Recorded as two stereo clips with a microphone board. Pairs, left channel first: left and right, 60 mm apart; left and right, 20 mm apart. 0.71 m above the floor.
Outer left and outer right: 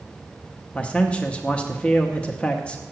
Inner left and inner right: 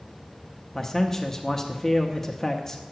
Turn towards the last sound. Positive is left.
turn(degrees=20)  # may be behind; listen again after turning